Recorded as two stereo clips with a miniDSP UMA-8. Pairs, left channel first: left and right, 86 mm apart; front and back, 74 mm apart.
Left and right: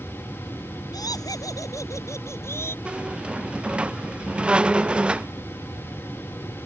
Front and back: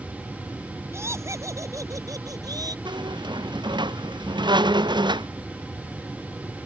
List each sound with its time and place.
0.9 s laughter: 130° left; by 2.8 s 150° left
2.9 s a squeak: 170° right